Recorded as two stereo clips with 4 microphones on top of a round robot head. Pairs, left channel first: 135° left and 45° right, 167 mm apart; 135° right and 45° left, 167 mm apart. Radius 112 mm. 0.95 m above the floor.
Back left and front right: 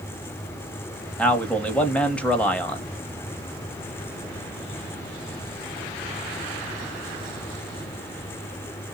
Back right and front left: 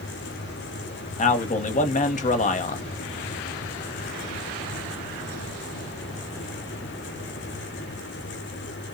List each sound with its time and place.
1.2 s a man speaking: 145° right, 1.0 m